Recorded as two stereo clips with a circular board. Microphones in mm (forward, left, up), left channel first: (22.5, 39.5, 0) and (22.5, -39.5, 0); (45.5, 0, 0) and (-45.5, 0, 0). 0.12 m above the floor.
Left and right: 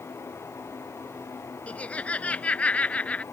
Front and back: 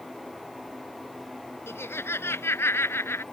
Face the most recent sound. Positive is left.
turn(degrees=30)